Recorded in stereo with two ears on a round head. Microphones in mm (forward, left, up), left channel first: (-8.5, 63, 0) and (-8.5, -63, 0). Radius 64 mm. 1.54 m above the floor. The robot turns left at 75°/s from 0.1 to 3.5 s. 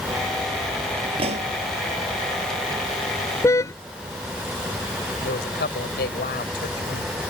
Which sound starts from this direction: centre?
A car horn, at 3.4 s.